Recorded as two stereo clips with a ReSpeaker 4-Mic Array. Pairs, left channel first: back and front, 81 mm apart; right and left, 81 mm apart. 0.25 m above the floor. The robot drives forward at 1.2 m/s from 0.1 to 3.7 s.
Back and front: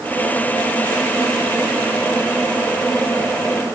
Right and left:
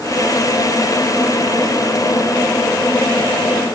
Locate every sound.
Only background noise.